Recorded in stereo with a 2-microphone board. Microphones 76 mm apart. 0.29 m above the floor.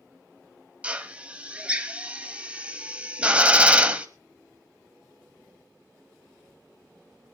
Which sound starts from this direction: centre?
A drill, at 0.8 s.